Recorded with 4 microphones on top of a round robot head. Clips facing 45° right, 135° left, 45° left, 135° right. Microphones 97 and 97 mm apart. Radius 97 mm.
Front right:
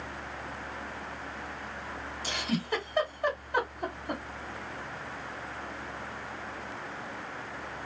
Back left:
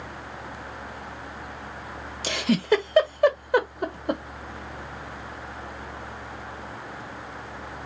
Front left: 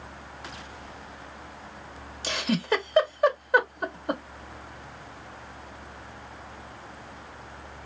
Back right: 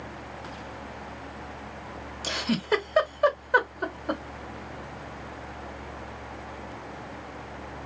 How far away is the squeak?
No squeak in this recording.